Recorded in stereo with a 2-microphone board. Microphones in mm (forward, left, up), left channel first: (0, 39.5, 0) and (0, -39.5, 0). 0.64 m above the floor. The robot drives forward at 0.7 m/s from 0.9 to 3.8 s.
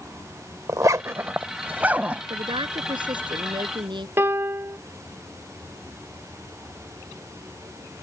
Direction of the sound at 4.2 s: 30° right (ahead or behind).